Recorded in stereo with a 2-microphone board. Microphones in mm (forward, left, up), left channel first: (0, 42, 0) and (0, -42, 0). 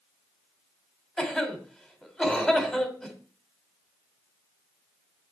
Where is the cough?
10° left (ahead or behind), 2.0 m.